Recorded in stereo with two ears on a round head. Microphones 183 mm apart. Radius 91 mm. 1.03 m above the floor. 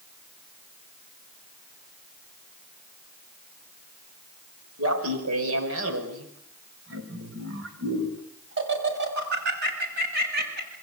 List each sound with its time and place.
4.8 s laughter: 80° right, 5.5 m; by 10.8 s 50° right (ahead or behind), 8.5 m